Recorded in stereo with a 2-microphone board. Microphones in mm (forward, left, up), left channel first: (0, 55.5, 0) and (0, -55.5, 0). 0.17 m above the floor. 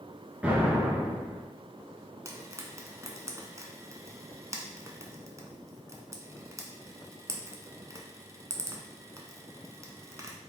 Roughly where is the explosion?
Centre.